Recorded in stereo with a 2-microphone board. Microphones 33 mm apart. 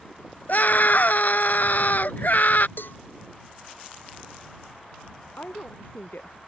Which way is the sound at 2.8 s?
85° left.